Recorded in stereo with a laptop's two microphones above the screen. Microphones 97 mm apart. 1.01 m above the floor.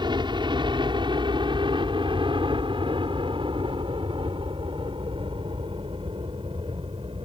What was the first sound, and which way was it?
A helicopter, 50° right (ahead or behind).